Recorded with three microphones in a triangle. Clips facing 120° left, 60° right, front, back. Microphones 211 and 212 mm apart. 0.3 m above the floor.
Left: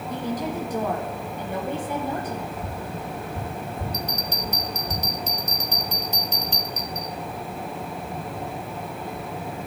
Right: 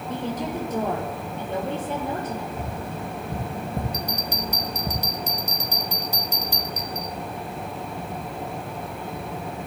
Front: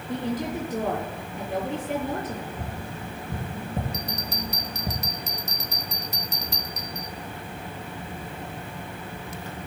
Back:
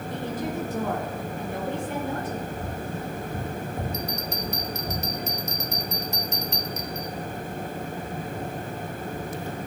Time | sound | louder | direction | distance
0.1 | a woman speaking | even, front 3 dB | 5° left | 5.5 m
2.6 | tapping | right 1 dB, back 4 dB | 45° right | 6 m
3.9 | a bell | right 1 dB, back 2 dB | 10° left | 1.0 m